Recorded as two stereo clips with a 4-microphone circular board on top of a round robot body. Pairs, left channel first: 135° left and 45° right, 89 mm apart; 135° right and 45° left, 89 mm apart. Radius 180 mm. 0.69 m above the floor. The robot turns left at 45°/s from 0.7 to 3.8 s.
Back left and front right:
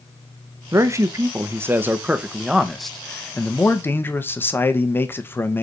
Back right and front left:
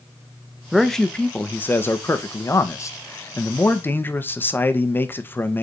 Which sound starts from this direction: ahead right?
A man speaking, at 0.7 s.